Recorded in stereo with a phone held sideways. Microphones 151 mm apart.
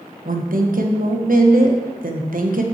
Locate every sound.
0.2 s a woman speaking: 70° right (ahead or behind), 1.2 m